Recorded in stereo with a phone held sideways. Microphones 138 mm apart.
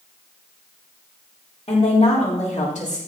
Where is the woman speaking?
50° left (ahead or behind), 4.5 m; by 3.0 s 65° left (ahead or behind), 4.5 m.